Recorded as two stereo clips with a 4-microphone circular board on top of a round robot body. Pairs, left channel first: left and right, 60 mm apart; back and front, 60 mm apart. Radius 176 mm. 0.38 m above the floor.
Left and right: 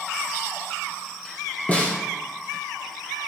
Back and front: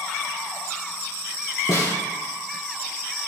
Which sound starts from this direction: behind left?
A snare drum, at 1.7 s.